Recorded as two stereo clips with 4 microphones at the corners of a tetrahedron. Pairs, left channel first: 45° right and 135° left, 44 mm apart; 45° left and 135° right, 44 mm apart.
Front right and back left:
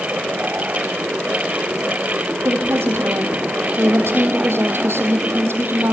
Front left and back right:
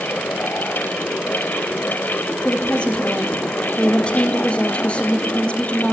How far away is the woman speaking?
About 4.5 m.